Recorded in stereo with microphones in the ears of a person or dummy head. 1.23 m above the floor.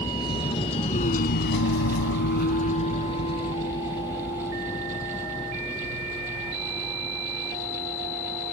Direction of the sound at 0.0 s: 20° left (ahead or behind).